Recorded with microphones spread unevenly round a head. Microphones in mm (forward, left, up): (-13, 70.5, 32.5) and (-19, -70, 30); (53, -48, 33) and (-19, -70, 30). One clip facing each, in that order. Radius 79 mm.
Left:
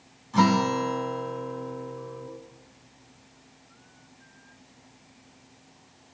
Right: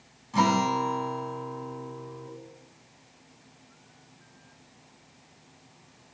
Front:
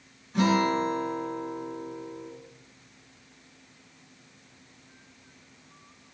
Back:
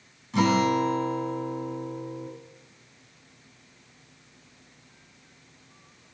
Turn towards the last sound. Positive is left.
turn(degrees=-175)